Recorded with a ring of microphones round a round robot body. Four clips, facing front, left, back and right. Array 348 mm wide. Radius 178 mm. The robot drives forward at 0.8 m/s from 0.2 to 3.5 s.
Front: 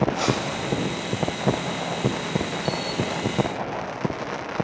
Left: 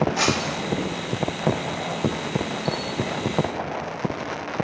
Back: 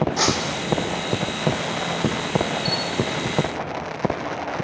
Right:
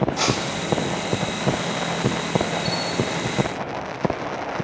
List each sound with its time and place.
0.2 s breaking glass: 165° left, 1.9 m; by 0.7 s 170° left, 2.5 m
2.6 s a bell: 115° right, 1.4 m; by 3.2 s 130° right, 1.6 m